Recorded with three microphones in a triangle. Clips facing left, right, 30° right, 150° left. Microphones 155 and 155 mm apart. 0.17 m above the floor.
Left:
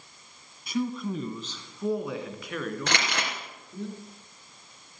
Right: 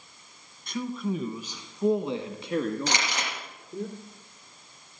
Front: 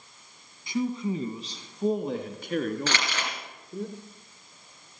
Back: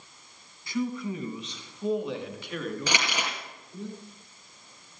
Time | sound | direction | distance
0.7 | a man speaking | 15° left | 1.1 m
2.9 | crumpling | 75° left | 3 m